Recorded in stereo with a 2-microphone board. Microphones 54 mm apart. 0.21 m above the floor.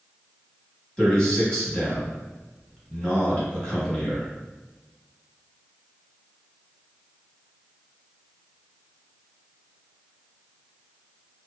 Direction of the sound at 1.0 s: 20° left (ahead or behind).